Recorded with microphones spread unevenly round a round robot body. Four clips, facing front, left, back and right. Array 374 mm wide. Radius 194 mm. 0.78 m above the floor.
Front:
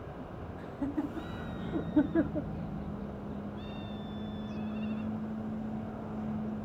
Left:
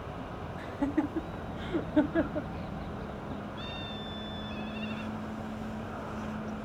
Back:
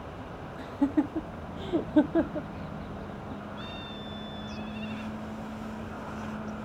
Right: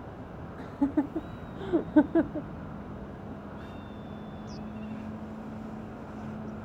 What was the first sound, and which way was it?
Laughter, 150° right.